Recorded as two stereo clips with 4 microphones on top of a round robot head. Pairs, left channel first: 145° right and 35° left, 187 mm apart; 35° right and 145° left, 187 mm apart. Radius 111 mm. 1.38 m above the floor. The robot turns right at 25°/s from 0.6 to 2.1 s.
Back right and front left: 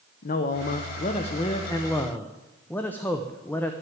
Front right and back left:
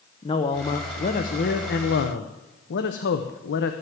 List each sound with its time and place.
0.2 s a man speaking: 100° right, 0.9 m; by 3.7 s 65° right, 0.9 m